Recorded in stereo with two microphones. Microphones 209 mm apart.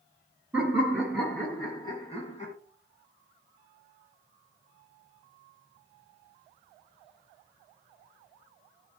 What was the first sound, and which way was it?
Laughter, 10° right (ahead or behind).